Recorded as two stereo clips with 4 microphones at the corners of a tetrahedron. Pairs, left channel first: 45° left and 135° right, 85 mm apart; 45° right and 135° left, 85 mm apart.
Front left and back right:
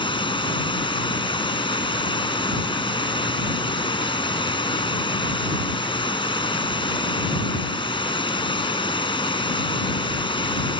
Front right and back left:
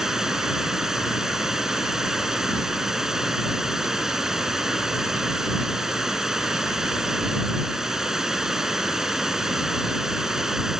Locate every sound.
0.0 s running water: 50° left